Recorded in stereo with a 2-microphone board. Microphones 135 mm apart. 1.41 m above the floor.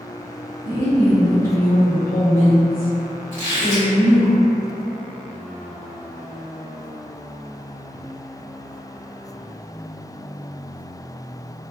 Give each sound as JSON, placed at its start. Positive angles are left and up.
{"t": 0.7, "sound": "a woman speaking", "side_deg": 90, "distance_m": 1.1}
{"t": 3.3, "sound": "a squeak", "side_deg": 60, "distance_m": 1.5}